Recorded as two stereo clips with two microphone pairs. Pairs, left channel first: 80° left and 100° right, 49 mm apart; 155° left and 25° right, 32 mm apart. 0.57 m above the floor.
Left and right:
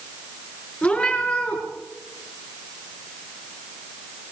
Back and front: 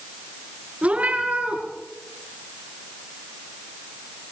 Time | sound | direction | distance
0.8 | a cat meowing | 20° left | 5 m